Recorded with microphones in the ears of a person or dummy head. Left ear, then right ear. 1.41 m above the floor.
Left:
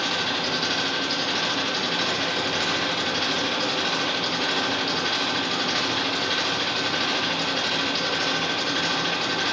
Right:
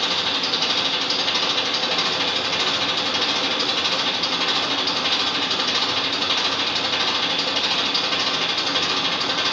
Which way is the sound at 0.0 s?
45° right (ahead or behind).